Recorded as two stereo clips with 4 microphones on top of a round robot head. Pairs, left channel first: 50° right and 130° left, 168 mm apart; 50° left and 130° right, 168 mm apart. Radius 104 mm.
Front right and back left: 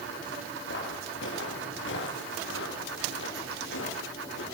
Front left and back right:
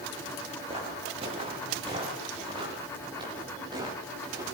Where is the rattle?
No rattle in this recording.